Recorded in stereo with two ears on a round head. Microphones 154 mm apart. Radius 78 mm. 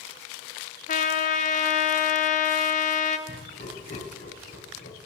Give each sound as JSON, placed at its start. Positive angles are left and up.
{"t": 0.9, "sound": "a trumpet", "side_deg": 50, "distance_m": 0.9}
{"t": 3.3, "sound": "laughter", "side_deg": 60, "distance_m": 4.0}